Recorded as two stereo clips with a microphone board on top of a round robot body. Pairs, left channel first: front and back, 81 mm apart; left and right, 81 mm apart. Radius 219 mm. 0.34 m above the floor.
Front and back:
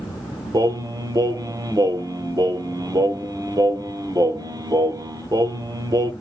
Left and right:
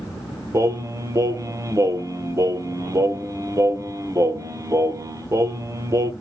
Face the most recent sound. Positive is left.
turn(degrees=-140)